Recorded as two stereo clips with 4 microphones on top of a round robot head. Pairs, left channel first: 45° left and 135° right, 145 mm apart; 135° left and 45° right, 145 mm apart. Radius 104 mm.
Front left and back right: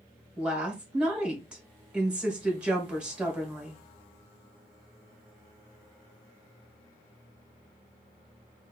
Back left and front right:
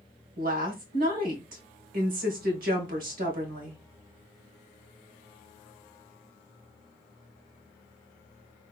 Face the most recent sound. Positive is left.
turn(degrees=-55)